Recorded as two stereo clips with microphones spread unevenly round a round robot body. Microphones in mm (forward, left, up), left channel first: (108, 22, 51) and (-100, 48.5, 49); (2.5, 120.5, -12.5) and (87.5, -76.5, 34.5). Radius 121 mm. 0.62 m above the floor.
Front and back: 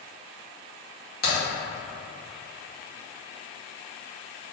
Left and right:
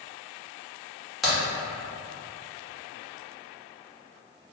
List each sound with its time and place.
1.2 s a crack: 30° left, 1.8 m